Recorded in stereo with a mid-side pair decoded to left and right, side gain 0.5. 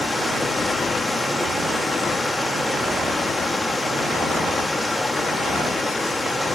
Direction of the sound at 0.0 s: 10° left.